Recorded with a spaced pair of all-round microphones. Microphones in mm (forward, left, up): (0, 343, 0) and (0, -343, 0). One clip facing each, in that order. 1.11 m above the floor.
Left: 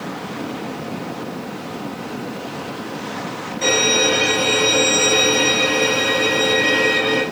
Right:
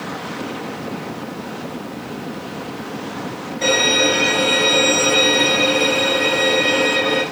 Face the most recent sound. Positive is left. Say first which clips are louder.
# even
turn(degrees=-15)  # may be behind; listen again after turning